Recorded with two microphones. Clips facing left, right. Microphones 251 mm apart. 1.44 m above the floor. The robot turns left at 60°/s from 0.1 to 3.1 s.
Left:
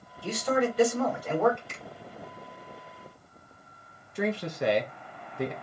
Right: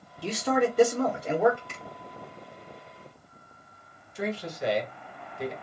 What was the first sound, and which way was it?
A man speaking, 95° right.